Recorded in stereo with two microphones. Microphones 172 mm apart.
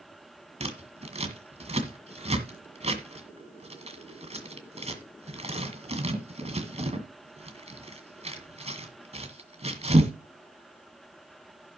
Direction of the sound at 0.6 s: 40° right (ahead or behind).